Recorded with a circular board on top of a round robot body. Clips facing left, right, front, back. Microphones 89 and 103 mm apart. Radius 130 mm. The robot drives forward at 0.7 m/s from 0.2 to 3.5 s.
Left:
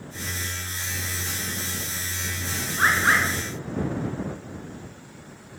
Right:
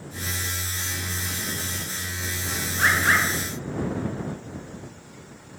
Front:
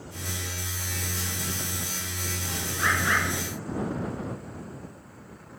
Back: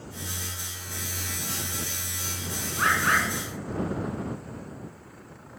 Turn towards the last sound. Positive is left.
turn(degrees=150)